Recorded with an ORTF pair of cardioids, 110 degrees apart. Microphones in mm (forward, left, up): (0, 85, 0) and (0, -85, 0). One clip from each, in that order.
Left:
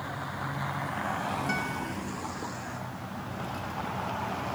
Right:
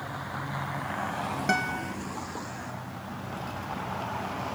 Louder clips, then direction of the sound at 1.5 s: Right 4 dB; 50° right.